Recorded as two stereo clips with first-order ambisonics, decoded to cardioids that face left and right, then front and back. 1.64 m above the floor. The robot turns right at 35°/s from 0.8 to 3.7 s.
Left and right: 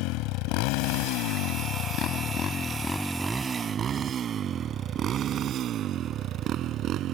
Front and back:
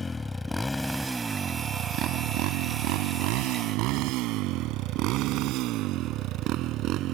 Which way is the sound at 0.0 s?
75° left.